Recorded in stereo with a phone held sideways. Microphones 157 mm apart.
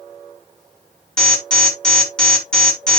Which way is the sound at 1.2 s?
5° left (ahead or behind).